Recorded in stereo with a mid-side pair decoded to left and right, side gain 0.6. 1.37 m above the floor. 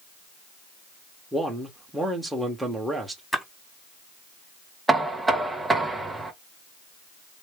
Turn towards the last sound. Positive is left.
turn(degrees=-10)